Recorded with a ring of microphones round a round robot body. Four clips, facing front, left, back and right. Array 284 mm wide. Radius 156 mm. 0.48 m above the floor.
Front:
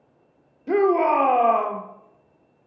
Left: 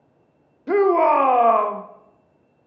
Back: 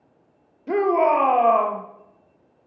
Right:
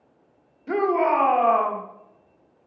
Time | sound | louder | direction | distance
0.7 | a shout | left 5 dB, even | 85° left | 1.0 m